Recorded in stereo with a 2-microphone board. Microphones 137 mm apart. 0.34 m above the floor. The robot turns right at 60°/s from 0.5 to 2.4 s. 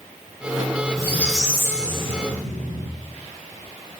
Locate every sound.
1.0 s a squeak: 155° left, 2.5 m; by 2.9 s 115° right, 2.5 m